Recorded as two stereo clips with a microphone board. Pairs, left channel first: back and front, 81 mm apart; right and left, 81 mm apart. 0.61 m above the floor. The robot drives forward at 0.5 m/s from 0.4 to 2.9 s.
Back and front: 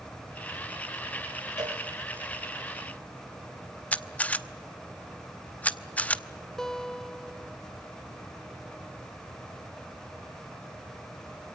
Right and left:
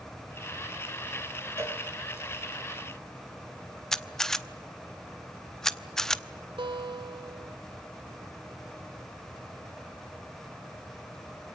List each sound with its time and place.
1.6 s a cowbell: 35° left, 7 m
3.9 s a camera shutter: 165° right, 0.9 m
6.6 s a guitar: 95° left, 0.8 m